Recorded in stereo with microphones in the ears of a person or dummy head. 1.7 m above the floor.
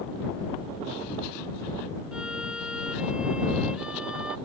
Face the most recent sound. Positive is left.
turn(degrees=0)  # may be behind; listen again after turning